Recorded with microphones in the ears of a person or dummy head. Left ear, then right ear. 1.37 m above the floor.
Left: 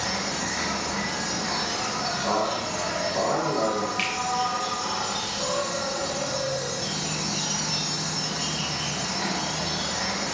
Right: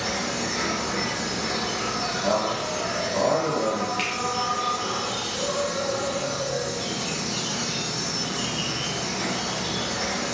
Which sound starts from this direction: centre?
A finger snap, at 4.0 s.